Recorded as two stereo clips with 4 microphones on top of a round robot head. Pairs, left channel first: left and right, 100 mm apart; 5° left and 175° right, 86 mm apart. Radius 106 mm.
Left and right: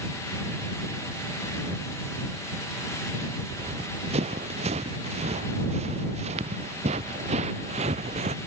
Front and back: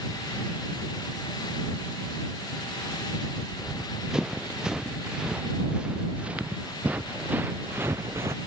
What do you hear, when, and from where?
3.5 s running footsteps: 90° right; by 8.4 s 110° right